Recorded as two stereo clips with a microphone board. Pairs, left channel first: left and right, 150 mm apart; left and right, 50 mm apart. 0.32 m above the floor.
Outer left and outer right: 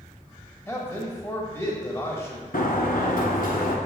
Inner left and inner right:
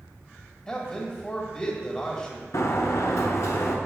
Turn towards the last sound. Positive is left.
turn(degrees=85)